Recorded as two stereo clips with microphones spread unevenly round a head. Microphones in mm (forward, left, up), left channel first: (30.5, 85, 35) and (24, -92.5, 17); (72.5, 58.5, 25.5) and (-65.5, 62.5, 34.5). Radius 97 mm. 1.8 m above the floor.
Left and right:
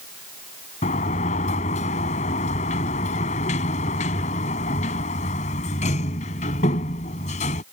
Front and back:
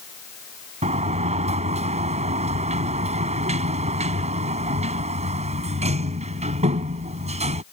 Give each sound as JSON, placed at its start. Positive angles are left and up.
{"t": 0.8, "sound": "a sliding door", "azimuth_deg": 140}